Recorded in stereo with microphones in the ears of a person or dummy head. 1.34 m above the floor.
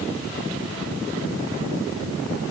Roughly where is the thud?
I don't hear a thud.